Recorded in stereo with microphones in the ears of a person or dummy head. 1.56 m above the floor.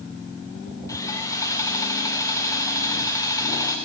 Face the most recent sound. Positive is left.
turn(degrees=20)  # may be behind; listen again after turning